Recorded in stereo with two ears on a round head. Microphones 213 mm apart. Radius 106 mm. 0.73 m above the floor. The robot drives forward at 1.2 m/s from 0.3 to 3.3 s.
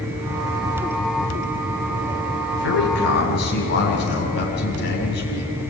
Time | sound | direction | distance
2.6 | a man speaking | 55° left (ahead or behind) | 5.5 m